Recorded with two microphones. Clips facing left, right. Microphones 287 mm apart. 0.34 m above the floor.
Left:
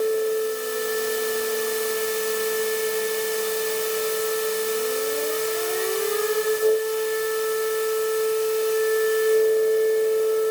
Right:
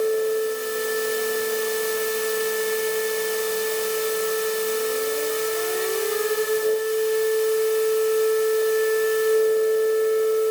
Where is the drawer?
I don't hear a drawer.